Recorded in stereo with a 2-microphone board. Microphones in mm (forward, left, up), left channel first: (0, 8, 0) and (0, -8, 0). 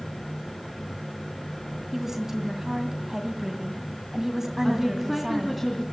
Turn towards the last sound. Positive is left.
turn(degrees=-5)  # may be behind; listen again after turning